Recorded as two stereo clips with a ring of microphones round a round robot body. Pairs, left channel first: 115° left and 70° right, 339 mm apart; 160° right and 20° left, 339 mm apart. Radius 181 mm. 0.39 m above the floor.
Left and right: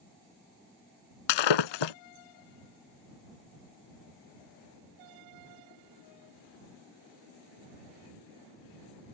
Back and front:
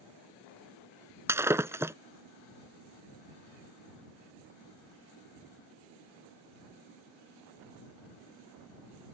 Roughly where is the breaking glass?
Left.